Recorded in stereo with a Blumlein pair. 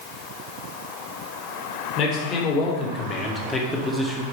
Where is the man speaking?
35° left, 2.5 m; by 4.2 s straight ahead, 1.2 m.